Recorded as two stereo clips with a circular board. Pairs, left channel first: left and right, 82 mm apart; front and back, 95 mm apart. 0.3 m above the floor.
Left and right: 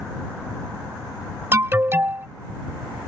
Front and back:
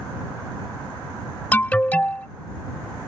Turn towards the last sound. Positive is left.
turn(degrees=-60)